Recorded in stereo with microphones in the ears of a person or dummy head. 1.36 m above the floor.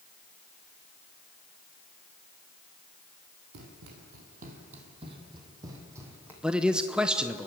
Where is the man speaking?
5° right (ahead or behind), 0.7 m.